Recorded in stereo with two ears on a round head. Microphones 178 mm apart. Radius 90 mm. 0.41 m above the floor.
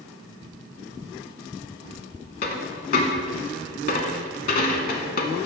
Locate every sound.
2.4 s a dropped coin: 45° left (ahead or behind), 0.7 m